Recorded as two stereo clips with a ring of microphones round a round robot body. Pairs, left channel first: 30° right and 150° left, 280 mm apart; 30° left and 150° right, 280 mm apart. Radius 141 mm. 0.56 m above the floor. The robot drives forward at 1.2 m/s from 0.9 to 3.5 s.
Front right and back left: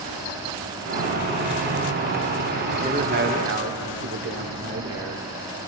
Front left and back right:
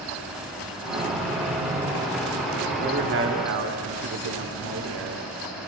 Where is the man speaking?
160° right, 1.1 m; by 5.7 s 175° right, 1.6 m.